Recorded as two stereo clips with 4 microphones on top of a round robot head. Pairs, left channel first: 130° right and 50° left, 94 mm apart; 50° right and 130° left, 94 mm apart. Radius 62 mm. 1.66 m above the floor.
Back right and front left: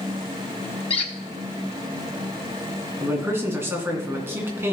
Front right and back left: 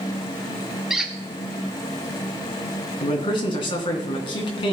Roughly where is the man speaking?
Ahead.